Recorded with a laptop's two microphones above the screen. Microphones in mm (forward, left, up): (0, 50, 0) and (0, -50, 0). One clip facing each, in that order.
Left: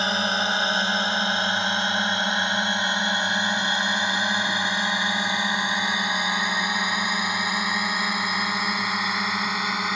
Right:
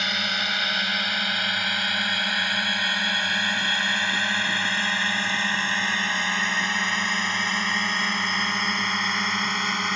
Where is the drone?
35° left (ahead or behind); by 10.0 s 5° left (ahead or behind).